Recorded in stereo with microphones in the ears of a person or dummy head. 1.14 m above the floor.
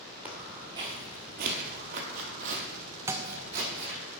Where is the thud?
15° right (ahead or behind), 0.6 m.